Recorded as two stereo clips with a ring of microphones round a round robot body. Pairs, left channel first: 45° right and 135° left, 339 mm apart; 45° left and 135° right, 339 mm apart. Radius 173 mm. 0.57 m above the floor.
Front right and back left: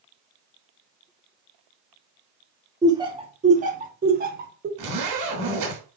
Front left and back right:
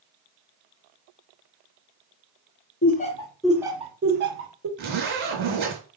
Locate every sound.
2.8 s laughter: 65° left, 0.7 m; by 4.7 s 170° right, 1.0 m
4.8 s a zipper: 165° left, 1.5 m